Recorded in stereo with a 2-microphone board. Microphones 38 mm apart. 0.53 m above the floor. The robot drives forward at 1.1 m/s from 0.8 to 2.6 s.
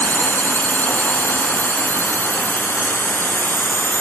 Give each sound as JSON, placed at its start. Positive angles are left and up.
{"t": 0.0, "sound": "a drone", "side_deg": 65}